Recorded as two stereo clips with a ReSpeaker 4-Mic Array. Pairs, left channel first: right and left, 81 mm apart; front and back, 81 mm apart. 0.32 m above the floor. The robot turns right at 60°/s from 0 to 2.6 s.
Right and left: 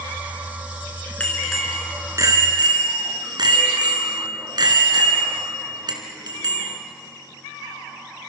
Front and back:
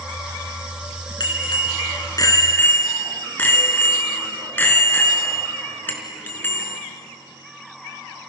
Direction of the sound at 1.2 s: 15° right.